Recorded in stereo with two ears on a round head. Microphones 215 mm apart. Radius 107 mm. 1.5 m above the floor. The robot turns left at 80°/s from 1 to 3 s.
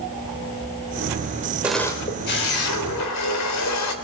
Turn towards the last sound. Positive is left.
turn(degrees=80)